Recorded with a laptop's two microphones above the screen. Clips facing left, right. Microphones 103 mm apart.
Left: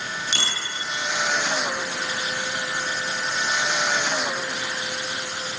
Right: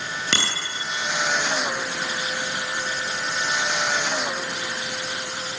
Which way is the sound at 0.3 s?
85° right.